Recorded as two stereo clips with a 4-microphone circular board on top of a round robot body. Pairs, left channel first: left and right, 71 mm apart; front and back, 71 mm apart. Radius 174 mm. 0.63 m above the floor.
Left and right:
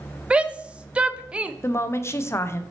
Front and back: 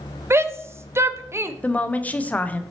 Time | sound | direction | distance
0.3 | a shout | 155° right | 0.6 m
1.6 | a woman speaking | 60° left | 0.6 m